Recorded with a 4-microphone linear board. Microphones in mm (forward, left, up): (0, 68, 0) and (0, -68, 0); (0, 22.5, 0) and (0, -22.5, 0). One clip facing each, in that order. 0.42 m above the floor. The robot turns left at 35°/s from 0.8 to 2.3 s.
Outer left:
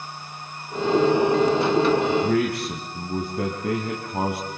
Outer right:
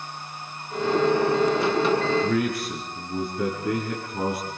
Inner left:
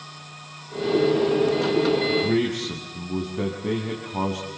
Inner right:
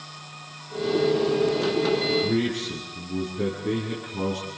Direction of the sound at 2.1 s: 70° left (ahead or behind).